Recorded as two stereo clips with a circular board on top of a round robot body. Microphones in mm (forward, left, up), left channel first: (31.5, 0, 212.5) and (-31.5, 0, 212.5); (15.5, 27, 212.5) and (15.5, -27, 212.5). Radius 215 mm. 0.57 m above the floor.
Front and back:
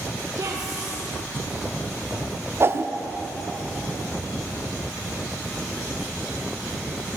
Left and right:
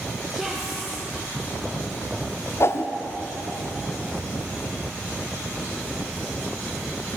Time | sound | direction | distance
0.3 | a woman speaking | 175° right | 2 m
2.6 | a whoosh | 130° left | 0.5 m